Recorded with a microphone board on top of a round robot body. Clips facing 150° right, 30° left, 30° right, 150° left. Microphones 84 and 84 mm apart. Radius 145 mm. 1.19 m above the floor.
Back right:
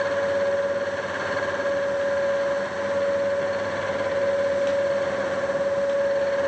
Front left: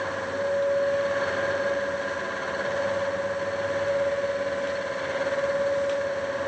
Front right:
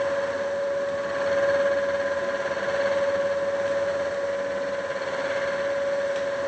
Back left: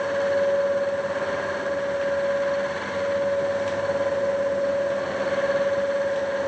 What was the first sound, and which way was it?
Only background noise.